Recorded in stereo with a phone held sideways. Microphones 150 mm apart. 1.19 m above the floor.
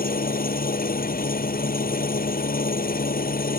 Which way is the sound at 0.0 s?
80° left.